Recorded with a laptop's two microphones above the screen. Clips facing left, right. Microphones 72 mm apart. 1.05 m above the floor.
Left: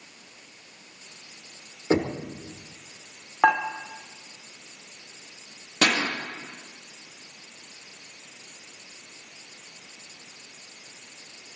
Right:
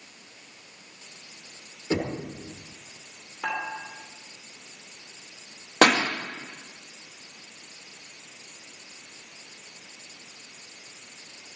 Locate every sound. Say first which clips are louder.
1.9 s knocking: left 4 dB; 40° left (ahead or behind), 2 m
3.4 s dishes clattering: left 11 dB; 75° left (ahead or behind), 1.7 m
5.8 s a pop: right 5 dB; 50° right (ahead or behind), 1.4 m